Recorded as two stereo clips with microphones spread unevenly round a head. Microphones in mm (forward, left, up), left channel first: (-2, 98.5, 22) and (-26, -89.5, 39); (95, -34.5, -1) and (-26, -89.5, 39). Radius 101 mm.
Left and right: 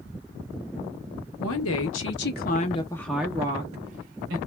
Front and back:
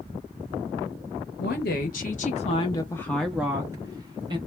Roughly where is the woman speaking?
Left.